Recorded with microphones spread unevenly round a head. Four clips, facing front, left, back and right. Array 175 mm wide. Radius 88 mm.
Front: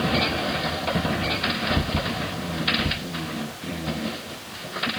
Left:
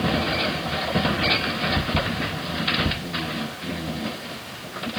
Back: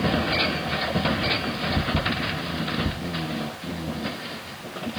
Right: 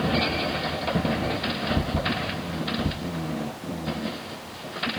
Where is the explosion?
I don't hear an explosion.